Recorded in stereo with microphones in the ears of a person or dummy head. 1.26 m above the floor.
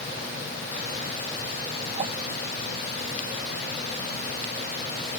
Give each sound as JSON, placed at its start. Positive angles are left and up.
{"t": 2.0, "sound": "a whoosh", "side_deg": -30}